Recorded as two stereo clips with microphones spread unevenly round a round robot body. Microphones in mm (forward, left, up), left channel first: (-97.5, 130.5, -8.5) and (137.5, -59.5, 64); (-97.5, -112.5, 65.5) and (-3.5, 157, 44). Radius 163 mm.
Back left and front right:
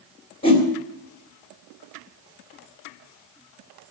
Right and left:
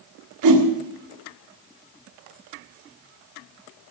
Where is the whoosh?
75° left, 3 m.